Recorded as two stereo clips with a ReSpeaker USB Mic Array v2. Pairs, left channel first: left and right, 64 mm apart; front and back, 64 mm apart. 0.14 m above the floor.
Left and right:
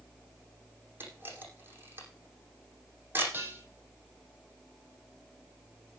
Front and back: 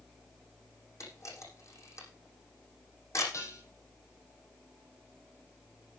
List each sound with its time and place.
1.0 s a camera shutter: 35° right, 6.5 m
3.3 s dishes clattering: 35° right, 4 m